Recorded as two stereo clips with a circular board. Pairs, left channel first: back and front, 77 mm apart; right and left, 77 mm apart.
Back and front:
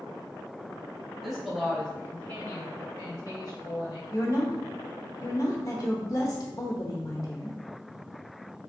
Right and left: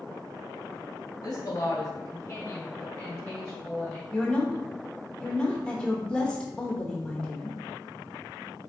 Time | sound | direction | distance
1.2 | a woman speaking | 85° right | 1.4 m
4.1 | a woman speaking | 165° right | 1.0 m